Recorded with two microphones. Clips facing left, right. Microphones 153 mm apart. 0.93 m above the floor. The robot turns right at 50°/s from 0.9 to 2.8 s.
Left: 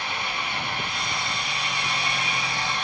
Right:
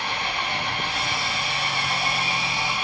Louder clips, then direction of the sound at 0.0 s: Right 2 dB; 105° right.